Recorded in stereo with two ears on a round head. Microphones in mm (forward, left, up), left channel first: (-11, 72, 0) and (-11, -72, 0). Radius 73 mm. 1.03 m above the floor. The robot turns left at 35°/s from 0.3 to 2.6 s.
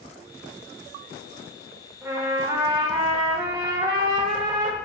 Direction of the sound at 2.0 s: 10° right (ahead or behind).